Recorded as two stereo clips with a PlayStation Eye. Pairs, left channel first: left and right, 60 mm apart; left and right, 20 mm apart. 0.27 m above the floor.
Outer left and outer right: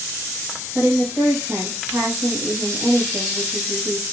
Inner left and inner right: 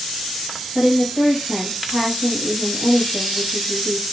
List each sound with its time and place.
0.8 s a woman speaking: 40° right (ahead or behind), 1.3 m